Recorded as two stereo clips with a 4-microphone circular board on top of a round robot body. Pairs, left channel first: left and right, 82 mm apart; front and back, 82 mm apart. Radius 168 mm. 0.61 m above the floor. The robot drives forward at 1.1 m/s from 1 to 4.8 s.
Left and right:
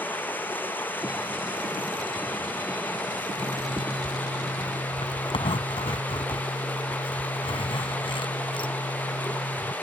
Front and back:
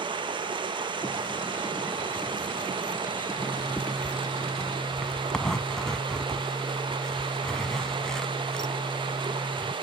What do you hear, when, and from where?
0.0 s running water: 160° left
3.4 s a zipper: 65° left; by 9.7 s 85° left